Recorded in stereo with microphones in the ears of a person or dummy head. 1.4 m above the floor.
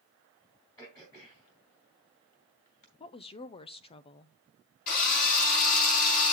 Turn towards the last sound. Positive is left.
turn(degrees=45)  # may be behind; listen again after turning